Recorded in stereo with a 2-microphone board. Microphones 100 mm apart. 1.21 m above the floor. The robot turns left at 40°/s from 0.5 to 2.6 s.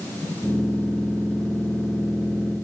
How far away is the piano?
No piano in this recording.